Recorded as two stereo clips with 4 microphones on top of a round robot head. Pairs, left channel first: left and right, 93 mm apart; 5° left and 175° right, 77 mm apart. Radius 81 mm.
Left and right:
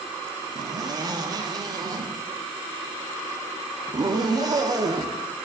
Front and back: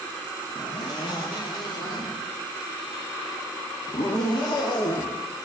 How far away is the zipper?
About 0.7 m.